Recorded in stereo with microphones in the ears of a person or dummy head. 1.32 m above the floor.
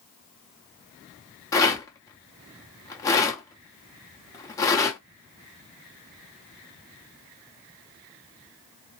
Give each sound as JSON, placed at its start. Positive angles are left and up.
{"t": 1.5, "sound": "a rattle", "side_deg": 15, "distance_m": 0.7}